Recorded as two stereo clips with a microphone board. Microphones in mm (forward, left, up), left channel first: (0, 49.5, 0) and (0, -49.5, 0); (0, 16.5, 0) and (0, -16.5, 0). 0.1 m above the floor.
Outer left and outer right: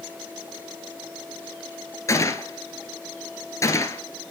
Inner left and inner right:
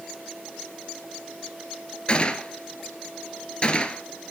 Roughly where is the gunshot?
Left.